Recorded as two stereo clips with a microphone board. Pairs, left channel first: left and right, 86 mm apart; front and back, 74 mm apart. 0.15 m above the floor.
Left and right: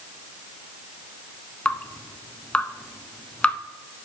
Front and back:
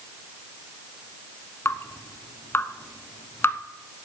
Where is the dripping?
25° left, 0.7 m.